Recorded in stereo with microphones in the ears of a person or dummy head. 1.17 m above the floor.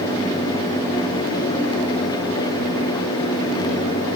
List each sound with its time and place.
Only background noise.